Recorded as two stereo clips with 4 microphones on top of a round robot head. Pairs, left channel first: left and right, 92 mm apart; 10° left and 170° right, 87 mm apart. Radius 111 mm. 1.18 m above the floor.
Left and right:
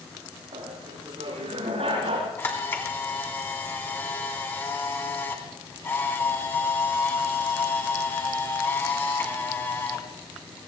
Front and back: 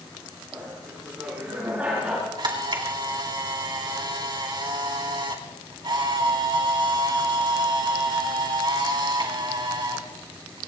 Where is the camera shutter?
155° left, 3.5 m.